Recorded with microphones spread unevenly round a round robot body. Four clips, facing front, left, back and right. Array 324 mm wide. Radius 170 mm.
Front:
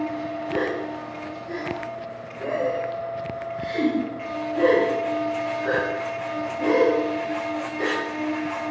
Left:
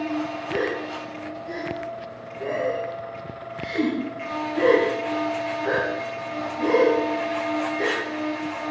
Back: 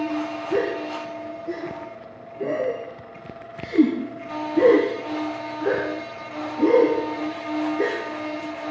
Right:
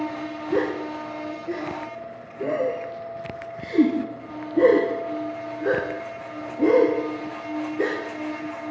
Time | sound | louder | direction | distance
0.5 | a gasp | right 4 dB, back 3 dB | 140° right | 6 m